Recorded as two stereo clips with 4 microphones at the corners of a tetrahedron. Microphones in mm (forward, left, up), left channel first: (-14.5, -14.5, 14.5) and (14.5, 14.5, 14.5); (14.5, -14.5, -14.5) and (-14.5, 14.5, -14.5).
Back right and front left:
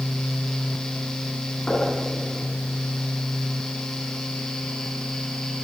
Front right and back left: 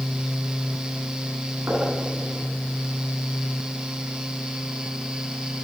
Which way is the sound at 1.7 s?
165° left.